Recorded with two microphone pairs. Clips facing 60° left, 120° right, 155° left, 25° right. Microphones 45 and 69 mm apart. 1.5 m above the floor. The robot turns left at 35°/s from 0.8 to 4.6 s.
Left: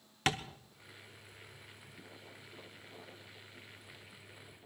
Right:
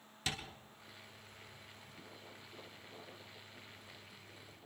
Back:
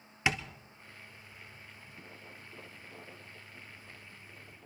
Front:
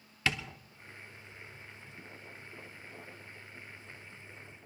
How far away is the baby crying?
I don't hear a baby crying.